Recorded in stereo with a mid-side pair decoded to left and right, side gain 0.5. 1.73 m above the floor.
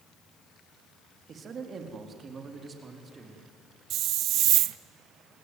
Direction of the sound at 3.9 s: 70° right.